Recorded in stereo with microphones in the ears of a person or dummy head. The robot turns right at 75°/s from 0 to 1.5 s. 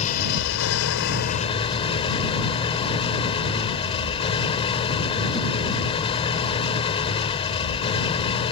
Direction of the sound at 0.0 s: 35° left.